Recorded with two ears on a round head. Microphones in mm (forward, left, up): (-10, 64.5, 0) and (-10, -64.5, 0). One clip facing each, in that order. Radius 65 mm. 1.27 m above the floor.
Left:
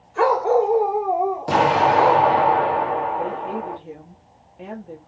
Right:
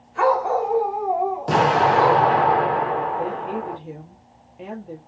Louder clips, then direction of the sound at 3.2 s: Even; 5° right (ahead or behind).